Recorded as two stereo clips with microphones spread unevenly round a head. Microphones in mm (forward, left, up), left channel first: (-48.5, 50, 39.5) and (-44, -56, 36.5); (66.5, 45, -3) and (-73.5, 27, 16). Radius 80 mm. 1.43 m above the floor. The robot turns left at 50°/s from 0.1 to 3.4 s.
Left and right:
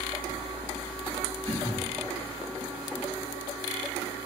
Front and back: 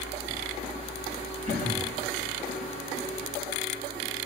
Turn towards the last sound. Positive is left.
turn(degrees=-115)